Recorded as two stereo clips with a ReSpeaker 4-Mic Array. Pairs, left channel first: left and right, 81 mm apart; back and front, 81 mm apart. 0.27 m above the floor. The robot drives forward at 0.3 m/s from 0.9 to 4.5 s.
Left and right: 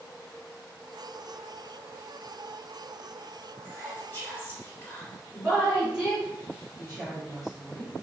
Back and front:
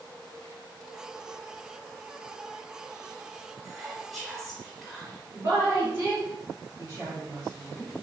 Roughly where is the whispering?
Left.